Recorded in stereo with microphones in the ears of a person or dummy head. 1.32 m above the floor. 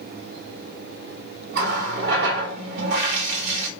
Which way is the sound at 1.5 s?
60° right (ahead or behind).